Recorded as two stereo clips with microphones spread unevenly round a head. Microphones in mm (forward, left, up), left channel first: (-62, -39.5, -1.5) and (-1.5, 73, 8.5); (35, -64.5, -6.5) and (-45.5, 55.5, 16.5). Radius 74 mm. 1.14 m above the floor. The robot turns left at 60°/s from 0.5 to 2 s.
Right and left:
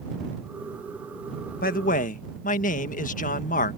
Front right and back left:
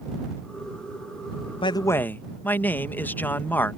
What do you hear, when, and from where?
1.6 s a man speaking: 110° right; by 3.8 s 130° right